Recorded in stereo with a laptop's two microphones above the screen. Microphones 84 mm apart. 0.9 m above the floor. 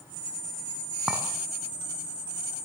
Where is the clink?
10° right (ahead or behind), 5 m.